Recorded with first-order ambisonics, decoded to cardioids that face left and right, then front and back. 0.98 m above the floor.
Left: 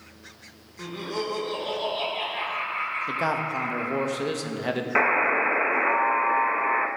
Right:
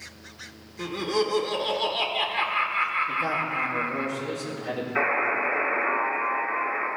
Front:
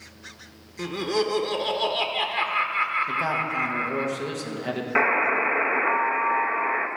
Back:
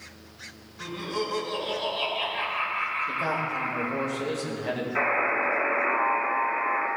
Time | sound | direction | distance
0.8 | laughter | 20° right | 0.8 m
3.1 | a man speaking | 75° left | 1.1 m
5.0 | a buzzer | 50° left | 0.9 m